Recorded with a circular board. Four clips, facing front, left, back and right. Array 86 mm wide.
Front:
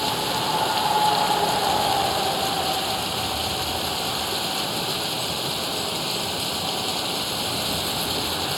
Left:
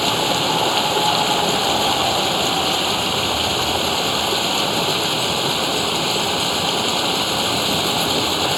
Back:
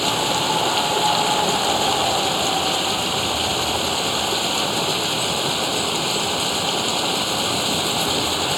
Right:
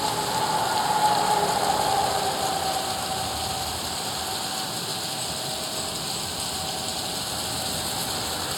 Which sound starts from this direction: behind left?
Running water, at 0.0 s.